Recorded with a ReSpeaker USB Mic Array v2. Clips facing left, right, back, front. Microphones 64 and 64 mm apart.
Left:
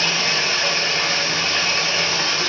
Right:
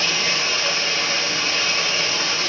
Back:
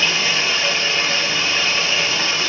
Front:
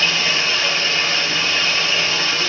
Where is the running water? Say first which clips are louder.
Left 1 dB, even; 105° left, 3 m.